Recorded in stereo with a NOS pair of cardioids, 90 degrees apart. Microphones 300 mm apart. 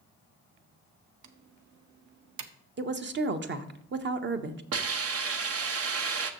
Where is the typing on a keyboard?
70° right, 1.0 m.